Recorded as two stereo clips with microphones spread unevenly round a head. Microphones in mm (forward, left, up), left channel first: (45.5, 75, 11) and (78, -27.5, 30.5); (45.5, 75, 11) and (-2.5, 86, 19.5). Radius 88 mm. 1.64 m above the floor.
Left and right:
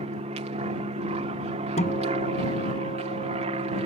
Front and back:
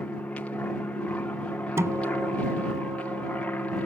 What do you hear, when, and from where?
0.0 s an aircraft: 80° right
1.8 s a guitar: 165° left